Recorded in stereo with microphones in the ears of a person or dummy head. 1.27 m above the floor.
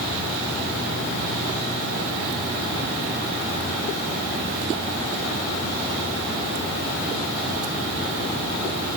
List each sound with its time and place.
Only background noise.